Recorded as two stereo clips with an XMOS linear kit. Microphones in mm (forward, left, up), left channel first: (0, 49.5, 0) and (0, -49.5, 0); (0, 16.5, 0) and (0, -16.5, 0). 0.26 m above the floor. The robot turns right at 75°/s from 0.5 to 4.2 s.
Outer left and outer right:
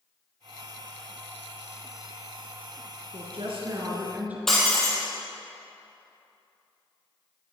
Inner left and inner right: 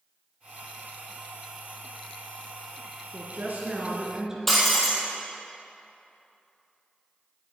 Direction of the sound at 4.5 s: 5° left (ahead or behind).